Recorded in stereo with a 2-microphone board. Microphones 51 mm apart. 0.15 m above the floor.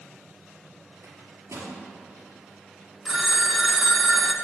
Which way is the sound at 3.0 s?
10° right (ahead or behind).